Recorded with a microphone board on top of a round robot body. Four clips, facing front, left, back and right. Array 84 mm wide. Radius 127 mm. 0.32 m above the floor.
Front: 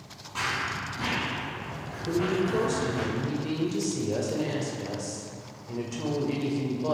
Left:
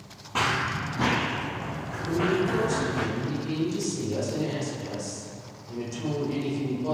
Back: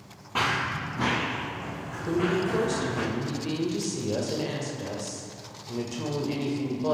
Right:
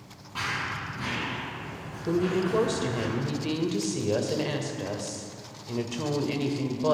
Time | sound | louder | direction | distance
0.3 | running footsteps | left 6 dB, back 4 dB | 135° left | 0.7 m
2.1 | a woman speaking | even, back 1 dB | 90° right | 2.0 m